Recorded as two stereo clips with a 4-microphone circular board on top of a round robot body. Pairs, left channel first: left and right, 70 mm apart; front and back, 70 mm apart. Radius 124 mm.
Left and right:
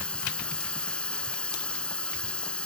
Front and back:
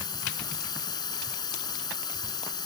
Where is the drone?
15° left.